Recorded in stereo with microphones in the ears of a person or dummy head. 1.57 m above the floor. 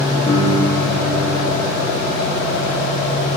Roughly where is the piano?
Left.